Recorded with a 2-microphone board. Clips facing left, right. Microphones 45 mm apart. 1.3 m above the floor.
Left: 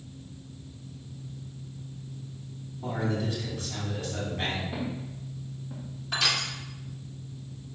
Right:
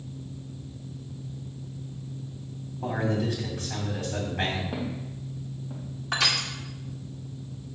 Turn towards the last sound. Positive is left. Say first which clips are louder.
# right 2 dB
turn(degrees=-70)  # may be behind; listen again after turning